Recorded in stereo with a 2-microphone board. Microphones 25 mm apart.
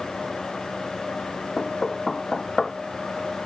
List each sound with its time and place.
1.6 s knocking: 30° left (ahead or behind)